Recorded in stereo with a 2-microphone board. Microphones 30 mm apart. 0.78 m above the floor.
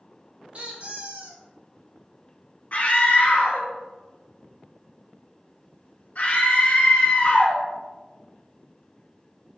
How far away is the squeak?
About 1.2 m.